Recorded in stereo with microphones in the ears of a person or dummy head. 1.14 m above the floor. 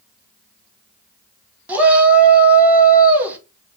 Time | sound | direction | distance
1.7 | a shout | 10° right (ahead or behind) | 0.9 m